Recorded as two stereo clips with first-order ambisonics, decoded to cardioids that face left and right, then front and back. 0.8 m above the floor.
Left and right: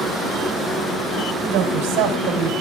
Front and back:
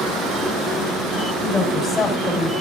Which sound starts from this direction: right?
A woman speaking, at 1.4 s.